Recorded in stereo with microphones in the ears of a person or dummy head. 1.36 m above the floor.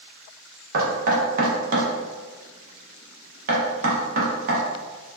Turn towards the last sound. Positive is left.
turn(degrees=-50)  # may be behind; listen again after turning